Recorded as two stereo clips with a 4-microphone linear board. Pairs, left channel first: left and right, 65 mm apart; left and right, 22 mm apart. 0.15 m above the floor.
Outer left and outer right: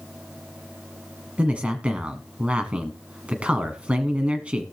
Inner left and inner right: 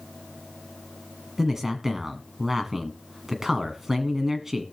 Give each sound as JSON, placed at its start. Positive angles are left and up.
{"t": 1.4, "sound": "a man speaking", "side_deg": -20, "distance_m": 1.3}